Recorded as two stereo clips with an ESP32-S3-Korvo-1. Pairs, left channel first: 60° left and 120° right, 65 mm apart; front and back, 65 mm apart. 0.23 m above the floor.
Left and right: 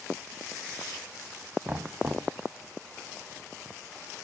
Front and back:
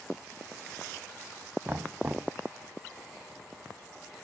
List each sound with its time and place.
1.6 s knocking: 150° right, 1.1 m